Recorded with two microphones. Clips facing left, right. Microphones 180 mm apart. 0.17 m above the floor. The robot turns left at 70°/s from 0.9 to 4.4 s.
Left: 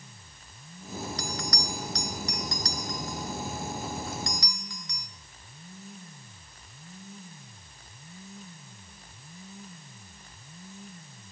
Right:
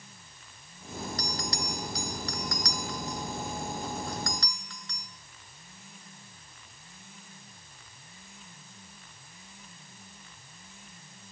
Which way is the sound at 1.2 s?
50° right (ahead or behind).